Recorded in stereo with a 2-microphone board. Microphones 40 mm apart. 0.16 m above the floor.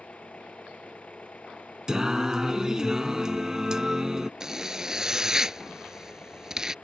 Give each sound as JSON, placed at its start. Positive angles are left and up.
{"t": 0.0, "sound": "an engine running", "side_deg": 35}
{"t": 1.9, "sound": "singing", "side_deg": -15}
{"t": 4.4, "sound": "a zipper", "side_deg": -10}